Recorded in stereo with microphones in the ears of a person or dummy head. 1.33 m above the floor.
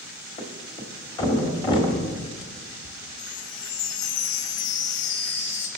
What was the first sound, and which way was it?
A thud, 25° left (ahead or behind).